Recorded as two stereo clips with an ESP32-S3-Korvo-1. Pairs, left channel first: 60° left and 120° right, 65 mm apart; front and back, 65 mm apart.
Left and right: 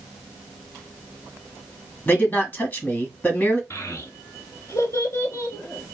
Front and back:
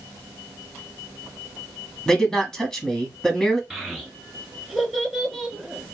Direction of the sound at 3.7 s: 95° left.